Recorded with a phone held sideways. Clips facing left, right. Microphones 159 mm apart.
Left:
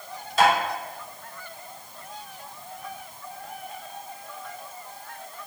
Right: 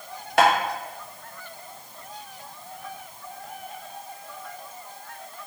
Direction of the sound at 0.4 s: 75° right (ahead or behind).